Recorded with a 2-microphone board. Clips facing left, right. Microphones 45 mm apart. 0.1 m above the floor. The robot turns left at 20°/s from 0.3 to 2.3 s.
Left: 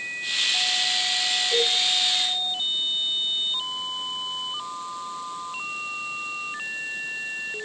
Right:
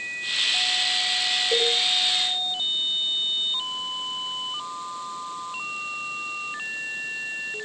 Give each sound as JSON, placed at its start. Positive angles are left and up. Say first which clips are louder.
{"t": 1.5, "sound": "a cowbell", "louder": "right 1 dB", "side_deg": -45, "distance_m": 6.0}